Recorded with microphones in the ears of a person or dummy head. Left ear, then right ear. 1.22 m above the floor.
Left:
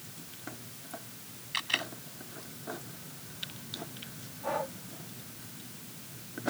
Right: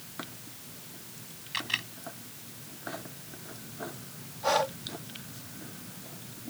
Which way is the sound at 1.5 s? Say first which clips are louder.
Left 1 dB; 5° left (ahead or behind).